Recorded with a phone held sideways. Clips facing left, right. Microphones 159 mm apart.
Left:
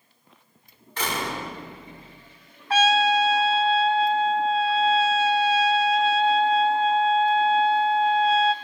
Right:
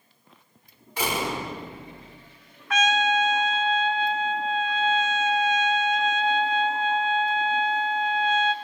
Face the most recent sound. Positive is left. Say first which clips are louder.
# left 3 dB
turn(degrees=35)  # may be behind; listen again after turning